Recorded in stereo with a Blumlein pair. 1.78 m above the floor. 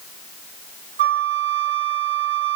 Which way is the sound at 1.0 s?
65° right.